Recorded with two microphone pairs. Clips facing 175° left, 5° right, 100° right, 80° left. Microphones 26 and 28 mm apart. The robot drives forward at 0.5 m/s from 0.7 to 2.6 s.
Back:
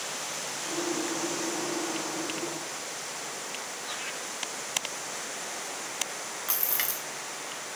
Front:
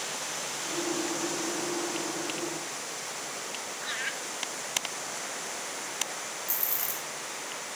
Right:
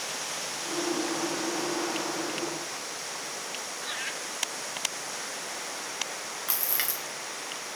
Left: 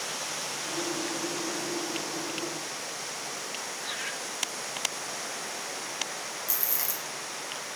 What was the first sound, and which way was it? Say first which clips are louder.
Laughter: front 6 dB, right 1 dB; 10° right.